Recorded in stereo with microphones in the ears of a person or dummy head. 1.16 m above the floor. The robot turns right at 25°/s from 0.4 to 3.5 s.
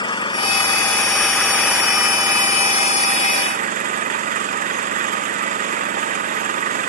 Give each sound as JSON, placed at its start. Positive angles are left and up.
{"t": 0.0, "sound": "an engine running", "azimuth_deg": 150}